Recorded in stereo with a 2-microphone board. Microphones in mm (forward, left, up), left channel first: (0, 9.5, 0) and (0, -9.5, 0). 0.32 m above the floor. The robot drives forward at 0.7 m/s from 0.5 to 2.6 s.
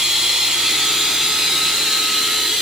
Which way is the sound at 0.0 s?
40° right (ahead or behind).